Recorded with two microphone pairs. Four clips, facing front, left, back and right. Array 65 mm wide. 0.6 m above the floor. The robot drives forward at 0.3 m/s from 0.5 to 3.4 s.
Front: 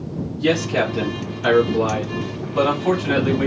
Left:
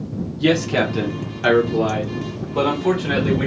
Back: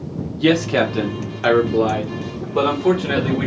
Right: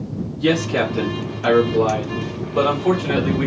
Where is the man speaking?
170° left, 0.8 m; by 3.5 s 175° left, 1.5 m.